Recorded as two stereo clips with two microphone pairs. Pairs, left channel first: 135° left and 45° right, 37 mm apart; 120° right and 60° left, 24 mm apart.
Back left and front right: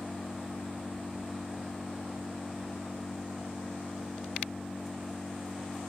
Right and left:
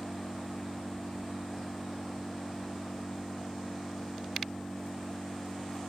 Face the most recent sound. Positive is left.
turn(degrees=-140)